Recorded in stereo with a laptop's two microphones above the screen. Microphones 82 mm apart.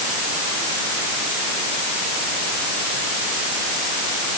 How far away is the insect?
No insect in this recording.